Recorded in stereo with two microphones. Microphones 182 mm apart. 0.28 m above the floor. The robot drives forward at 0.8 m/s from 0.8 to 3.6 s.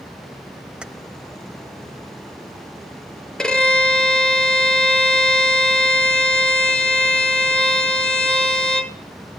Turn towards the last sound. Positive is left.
turn(degrees=5)  # may be behind; listen again after turning